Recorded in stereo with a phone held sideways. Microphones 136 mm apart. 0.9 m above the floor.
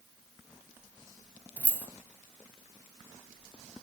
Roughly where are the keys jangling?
Centre.